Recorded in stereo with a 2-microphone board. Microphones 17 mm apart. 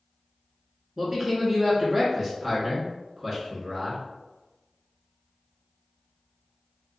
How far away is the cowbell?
No cowbell in this recording.